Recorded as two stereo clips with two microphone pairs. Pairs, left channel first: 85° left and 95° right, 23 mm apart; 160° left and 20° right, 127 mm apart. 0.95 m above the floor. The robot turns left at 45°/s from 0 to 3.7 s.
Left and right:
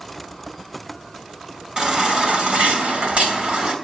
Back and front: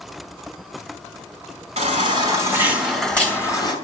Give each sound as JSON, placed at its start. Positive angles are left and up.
{"t": 1.8, "sound": "a baby crying", "azimuth_deg": -60, "distance_m": 4.0}